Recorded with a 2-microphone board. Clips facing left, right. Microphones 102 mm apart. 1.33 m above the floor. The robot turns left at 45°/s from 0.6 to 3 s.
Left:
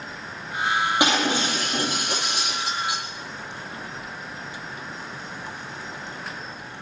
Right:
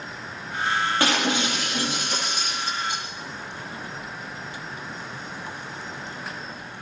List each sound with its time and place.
1.0 s breaking glass: 165° left, 9 m; by 3.0 s 75° left, 9 m